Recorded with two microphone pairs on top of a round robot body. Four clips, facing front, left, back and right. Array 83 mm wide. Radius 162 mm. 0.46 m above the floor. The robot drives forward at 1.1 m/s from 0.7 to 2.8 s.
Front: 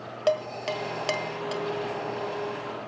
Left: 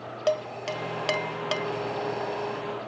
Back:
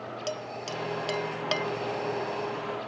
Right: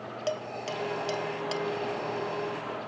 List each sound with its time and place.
0.3 s dishes clattering: 25° left, 0.8 m; by 1.7 s 145° left, 0.7 m